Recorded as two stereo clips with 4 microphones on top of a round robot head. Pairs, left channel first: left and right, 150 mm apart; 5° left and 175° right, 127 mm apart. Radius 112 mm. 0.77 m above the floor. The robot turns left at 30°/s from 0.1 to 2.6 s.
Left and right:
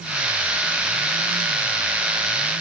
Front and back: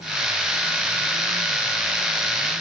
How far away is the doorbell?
No doorbell in this recording.